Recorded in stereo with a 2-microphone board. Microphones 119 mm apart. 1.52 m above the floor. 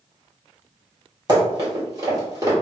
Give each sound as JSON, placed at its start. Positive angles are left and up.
{"t": 1.3, "sound": "running footsteps", "side_deg": -35, "distance_m": 1.8}